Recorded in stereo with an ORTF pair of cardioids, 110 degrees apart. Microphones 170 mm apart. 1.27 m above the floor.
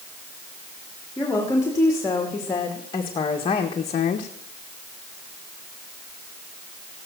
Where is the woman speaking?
15° left, 3.5 m; by 4.3 s 60° left, 1.2 m.